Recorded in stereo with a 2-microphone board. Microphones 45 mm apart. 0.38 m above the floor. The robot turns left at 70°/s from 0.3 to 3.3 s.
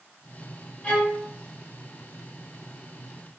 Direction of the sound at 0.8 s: 30° left (ahead or behind).